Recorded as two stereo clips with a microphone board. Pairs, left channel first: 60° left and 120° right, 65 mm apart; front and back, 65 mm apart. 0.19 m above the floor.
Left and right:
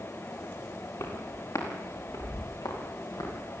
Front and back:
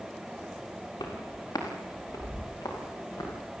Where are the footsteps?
15° left, 7.5 m; by 3.3 s 35° left, 9.5 m.